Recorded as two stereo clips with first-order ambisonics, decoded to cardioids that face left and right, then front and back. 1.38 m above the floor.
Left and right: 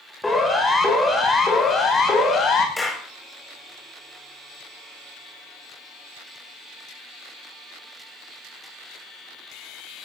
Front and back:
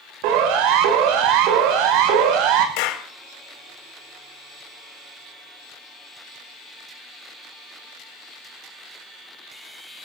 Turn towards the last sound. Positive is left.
turn(degrees=10)